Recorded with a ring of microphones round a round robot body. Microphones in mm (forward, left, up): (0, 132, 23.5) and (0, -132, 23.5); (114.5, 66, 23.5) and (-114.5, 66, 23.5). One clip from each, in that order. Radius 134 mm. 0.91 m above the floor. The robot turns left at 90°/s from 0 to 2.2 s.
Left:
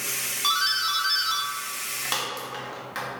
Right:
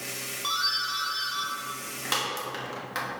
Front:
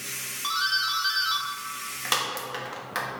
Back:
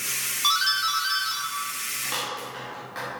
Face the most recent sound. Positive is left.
turn(degrees=-10)